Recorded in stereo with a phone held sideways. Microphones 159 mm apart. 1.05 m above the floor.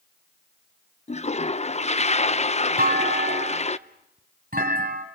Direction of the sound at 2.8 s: 60° right (ahead or behind).